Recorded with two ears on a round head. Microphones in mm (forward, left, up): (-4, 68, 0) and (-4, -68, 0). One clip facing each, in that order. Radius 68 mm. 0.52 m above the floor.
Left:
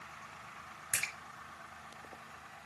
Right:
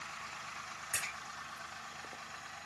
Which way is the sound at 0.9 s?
75° left (ahead or behind).